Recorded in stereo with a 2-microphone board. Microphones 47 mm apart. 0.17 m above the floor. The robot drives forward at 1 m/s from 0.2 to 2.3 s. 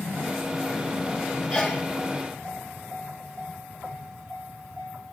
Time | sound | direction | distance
1.5 | a sneeze | 30° left (ahead or behind) | 5 m